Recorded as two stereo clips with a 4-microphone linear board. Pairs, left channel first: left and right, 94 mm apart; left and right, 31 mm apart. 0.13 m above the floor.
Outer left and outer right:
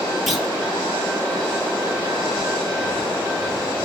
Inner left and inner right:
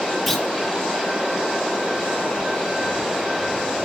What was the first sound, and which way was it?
A clunk, centre (ahead or behind).